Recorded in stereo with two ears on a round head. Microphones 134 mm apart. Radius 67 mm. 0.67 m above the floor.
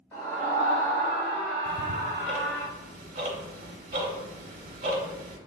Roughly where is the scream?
Centre.